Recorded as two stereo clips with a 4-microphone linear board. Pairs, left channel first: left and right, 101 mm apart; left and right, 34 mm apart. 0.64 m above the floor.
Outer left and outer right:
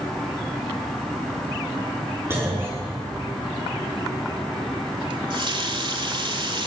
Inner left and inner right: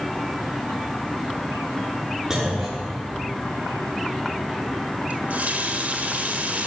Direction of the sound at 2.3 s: 25° right (ahead or behind).